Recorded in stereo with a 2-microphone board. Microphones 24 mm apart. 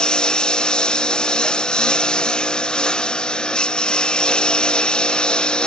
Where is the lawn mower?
35° left (ahead or behind); by 5.7 s 40° left (ahead or behind).